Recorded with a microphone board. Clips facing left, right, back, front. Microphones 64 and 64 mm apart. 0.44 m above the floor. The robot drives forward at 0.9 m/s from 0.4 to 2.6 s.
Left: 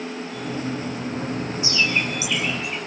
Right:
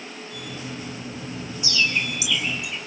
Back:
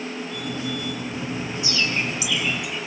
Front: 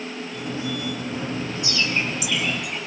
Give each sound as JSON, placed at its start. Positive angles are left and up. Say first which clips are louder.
{"t": 1.6, "sound": "a bird", "louder": "left 1 dB, even", "azimuth_deg": 30, "distance_m": 4.0}